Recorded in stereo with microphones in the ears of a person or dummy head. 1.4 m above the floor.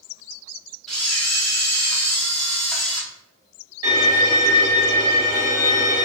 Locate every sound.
0.9 s a camera shutter: centre (ahead or behind), 0.7 m
3.8 s a violin: 25° right (ahead or behind), 1.6 m